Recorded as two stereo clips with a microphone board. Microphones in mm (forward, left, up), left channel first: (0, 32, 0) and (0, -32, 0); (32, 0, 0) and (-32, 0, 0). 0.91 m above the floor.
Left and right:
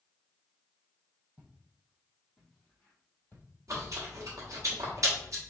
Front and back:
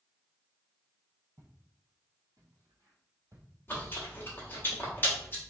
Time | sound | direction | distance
1.4 | footsteps | 160° right | 1.6 m
3.7 | chewing | 60° right | 1.2 m